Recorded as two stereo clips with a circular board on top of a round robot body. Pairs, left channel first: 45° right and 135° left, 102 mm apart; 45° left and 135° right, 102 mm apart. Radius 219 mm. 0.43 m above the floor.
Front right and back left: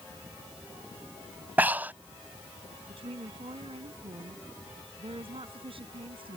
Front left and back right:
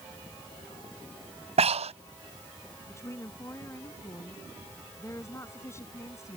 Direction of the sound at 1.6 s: 150° right.